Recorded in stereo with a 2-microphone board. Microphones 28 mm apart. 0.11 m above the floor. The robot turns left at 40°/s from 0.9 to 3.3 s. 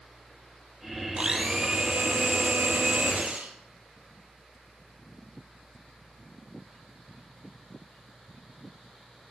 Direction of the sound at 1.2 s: 30° right.